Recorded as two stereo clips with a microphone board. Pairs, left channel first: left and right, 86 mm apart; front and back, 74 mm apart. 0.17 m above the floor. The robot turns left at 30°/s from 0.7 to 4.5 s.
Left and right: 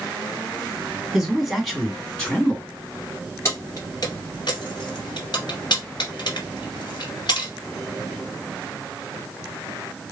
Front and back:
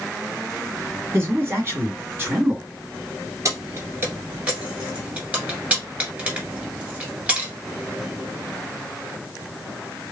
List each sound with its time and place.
1.1 s a man speaking: 165° right, 1.9 m; by 2.7 s 150° left, 1.9 m
3.5 s keys jangling: 140° left, 1.6 m; by 7.5 s 110° left, 1.6 m